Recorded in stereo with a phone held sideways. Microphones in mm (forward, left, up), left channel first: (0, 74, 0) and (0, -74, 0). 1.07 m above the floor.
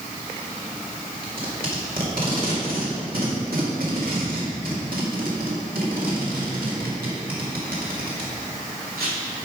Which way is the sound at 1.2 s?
80° right.